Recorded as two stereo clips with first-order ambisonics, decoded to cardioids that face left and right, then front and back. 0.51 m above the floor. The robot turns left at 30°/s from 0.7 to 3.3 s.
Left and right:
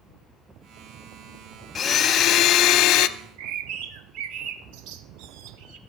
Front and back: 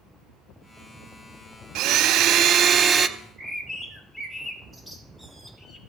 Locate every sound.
1.8 s a blender: 155° left, 0.5 m; by 3.1 s 115° left, 0.5 m
3.2 s a bird: 95° right, 1.2 m